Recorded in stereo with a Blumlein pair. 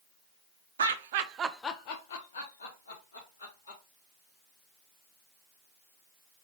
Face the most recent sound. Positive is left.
turn(degrees=80)